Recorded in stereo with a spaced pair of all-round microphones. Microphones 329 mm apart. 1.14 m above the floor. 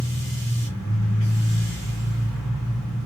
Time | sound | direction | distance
0.0 | a machine running | 55° left (ahead or behind) | 2.5 m